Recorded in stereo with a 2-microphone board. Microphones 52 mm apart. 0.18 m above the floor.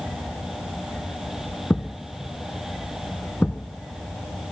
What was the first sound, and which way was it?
A thud, 25° left (ahead or behind).